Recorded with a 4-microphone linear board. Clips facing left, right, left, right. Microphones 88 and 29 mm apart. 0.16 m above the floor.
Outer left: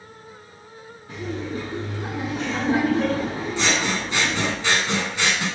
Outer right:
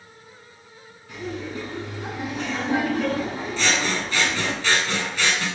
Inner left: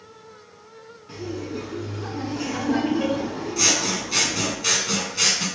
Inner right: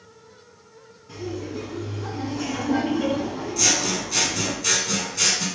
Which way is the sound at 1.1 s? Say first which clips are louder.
Outer left 2 dB, even; 35° left (ahead or behind).